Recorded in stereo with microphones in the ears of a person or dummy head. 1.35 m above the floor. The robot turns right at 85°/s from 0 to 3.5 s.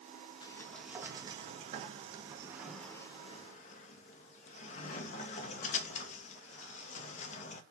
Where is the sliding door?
155° left, 0.6 m; by 7.6 s 55° left, 0.6 m.